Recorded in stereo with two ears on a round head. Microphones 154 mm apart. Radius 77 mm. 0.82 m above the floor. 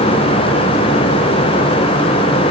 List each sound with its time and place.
Only background noise.